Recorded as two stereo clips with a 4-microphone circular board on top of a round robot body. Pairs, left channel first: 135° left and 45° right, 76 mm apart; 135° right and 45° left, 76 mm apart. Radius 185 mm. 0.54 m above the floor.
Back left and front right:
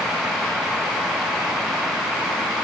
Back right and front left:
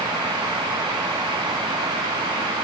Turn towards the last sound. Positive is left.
No sound to turn to.